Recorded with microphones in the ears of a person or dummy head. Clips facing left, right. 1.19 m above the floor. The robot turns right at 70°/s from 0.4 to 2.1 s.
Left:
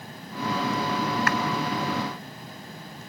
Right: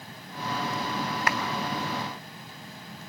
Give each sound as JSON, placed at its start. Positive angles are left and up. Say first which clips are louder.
{"t": 1.3, "sound": "a clap", "louder": "even", "side_deg": -20, "distance_m": 3.5}